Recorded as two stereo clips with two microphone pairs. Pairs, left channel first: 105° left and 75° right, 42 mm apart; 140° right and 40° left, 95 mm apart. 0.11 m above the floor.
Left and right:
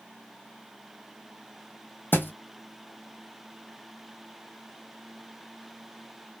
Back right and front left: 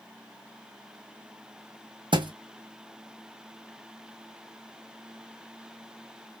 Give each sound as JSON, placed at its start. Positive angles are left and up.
{"t": 2.1, "sound": "a thud", "azimuth_deg": 70, "distance_m": 0.5}